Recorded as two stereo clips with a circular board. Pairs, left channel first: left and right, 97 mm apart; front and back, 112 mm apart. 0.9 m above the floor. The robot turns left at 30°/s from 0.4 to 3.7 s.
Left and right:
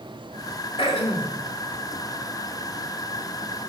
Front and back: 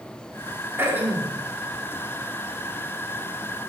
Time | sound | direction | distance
0.8 | throat clearing | 115° left | 1.7 m